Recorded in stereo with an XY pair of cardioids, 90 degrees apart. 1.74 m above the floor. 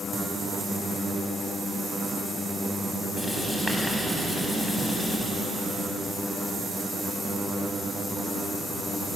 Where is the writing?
5° left, 8 m.